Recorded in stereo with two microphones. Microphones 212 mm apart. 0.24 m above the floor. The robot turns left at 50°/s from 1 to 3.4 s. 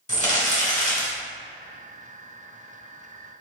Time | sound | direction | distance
0.1 | crumpling | 35° left (ahead or behind) | 1.5 m